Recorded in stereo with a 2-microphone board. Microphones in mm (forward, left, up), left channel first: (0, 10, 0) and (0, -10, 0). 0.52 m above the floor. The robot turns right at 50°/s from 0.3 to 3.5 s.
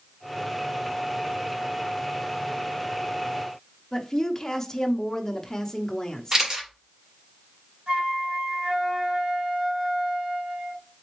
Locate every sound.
3.9 s a woman speaking: 25° left (ahead or behind), 0.7 m
6.3 s a camera shutter: 35° right (ahead or behind), 1.8 m
7.9 s a flute: 55° right (ahead or behind), 3.5 m